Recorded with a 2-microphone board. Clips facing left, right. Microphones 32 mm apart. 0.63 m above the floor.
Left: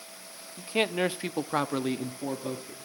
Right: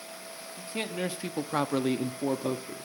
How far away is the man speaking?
About 0.8 m.